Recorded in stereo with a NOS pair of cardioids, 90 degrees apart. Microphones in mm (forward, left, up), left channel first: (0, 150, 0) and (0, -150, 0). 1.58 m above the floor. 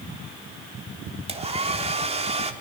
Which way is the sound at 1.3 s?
20° right.